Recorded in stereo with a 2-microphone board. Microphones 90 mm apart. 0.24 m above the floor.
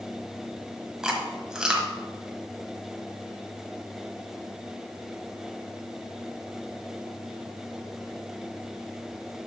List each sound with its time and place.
1.0 s chewing: 5° right (ahead or behind), 1.3 m